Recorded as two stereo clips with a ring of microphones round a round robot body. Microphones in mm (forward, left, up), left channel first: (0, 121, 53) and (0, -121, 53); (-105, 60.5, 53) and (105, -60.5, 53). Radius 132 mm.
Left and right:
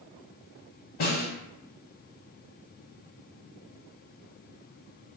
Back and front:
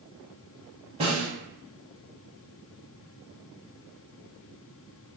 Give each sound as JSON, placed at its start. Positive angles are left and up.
{"t": 1.0, "sound": "a snare drum", "azimuth_deg": 40, "distance_m": 0.5}